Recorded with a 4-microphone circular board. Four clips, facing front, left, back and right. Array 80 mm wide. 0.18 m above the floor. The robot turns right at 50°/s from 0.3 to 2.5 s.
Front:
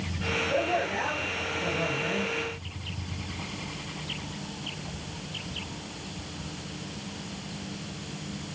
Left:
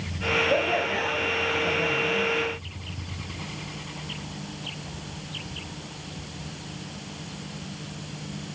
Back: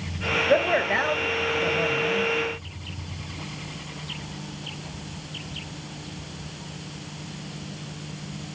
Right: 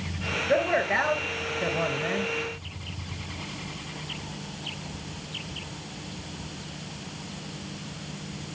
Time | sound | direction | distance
0.5 | a man speaking | 165° right | 3 m